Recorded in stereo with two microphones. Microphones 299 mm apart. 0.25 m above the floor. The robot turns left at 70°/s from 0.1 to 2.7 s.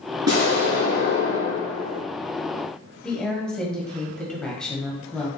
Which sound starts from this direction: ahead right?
An explosion, at 0.3 s.